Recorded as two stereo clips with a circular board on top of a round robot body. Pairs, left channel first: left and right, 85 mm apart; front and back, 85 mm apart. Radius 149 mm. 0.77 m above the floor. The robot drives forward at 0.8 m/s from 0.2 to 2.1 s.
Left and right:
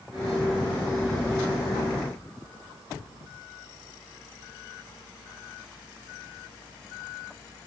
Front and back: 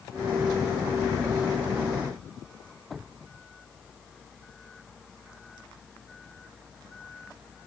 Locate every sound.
Only background noise.